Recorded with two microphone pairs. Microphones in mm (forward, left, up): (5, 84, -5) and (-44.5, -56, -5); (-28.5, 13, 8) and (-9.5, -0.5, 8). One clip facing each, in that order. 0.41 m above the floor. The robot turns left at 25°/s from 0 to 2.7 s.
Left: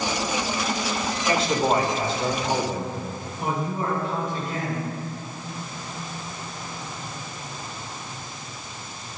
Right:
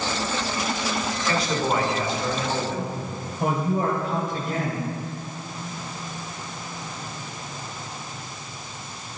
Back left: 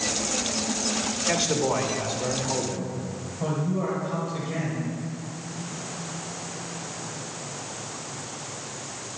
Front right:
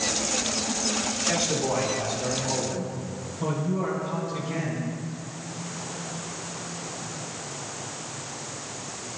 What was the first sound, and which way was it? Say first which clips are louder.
A man speaking: left 3 dB, back left 2 dB; 110° left.